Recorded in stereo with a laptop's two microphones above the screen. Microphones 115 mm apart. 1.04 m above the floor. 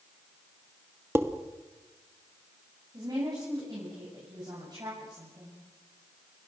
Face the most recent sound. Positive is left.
turn(degrees=-35)  # may be behind; listen again after turning